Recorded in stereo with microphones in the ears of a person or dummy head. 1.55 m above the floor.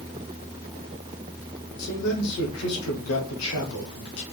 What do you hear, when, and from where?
1.8 s a man speaking: 85° left, 1.0 m